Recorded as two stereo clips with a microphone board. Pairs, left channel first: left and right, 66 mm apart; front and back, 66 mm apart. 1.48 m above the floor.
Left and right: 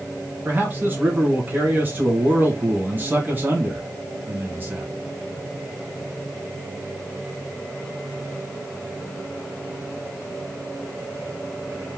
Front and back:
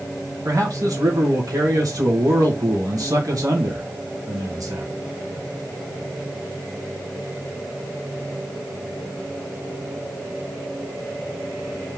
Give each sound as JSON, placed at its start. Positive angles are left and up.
{"t": 0.5, "sound": "a man speaking", "azimuth_deg": -150, "distance_m": 2.0}